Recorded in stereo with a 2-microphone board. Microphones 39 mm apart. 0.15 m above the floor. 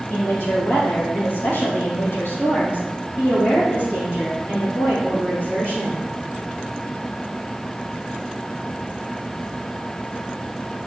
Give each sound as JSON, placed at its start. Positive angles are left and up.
{"t": 0.1, "sound": "a woman speaking", "side_deg": 60, "distance_m": 3.5}